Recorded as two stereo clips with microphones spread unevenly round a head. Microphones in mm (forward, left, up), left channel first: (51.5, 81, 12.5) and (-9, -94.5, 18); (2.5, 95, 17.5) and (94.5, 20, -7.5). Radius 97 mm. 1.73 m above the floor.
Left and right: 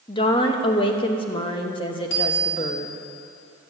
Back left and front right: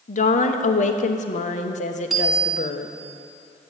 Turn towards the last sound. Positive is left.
turn(degrees=50)